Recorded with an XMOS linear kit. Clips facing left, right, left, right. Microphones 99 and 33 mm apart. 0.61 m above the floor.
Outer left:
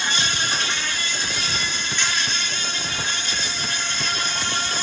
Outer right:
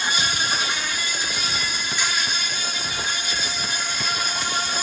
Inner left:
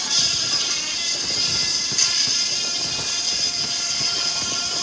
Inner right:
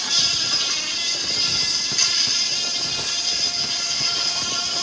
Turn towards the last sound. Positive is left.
turn(degrees=-10)  # may be behind; listen again after turning